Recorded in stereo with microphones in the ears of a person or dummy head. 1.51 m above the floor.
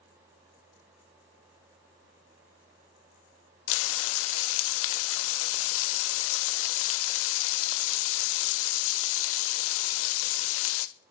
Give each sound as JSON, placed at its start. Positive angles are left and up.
{"t": 3.7, "sound": "frying", "side_deg": 80, "distance_m": 0.5}